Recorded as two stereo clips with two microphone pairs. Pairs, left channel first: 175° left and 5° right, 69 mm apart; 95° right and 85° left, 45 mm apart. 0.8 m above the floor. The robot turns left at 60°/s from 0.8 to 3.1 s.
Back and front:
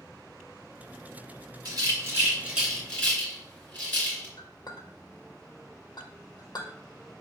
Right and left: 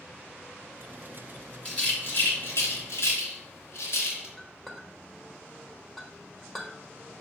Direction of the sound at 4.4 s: Straight behind.